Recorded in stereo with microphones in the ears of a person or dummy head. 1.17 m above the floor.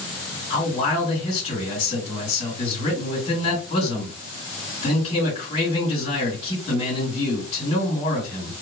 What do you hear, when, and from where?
0.5 s a man speaking: 30° left (ahead or behind), 2.5 m